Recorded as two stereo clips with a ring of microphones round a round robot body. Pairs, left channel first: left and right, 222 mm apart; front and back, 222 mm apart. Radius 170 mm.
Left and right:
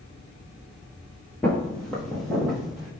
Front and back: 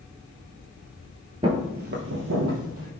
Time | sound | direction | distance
1.4 | footsteps | 160° left | 0.7 m